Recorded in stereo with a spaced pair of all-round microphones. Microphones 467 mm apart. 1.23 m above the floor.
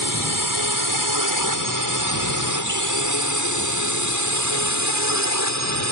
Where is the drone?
45° right (ahead or behind); by 5.9 s 35° right (ahead or behind).